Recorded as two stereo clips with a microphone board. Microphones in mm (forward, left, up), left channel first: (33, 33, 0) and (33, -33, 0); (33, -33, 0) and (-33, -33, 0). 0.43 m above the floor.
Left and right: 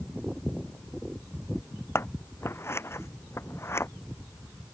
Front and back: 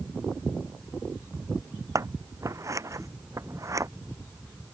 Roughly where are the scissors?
Behind left.